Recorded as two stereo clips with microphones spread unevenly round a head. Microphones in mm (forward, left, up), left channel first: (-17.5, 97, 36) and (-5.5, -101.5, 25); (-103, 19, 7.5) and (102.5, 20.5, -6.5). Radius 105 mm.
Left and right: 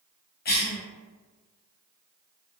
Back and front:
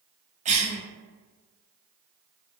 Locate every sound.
0.5 s a cough: 55° left, 0.8 m